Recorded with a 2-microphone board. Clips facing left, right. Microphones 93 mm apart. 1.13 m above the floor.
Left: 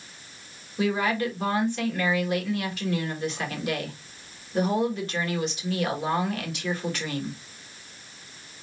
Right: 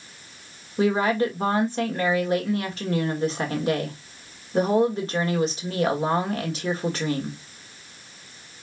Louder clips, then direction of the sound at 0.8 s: Right 4 dB; 35° right (ahead or behind).